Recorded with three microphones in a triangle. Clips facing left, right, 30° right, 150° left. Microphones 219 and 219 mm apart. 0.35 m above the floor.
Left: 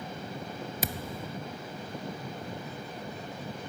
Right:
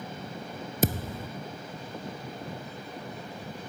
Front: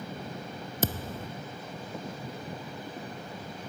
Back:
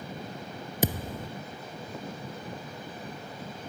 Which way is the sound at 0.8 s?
135° right.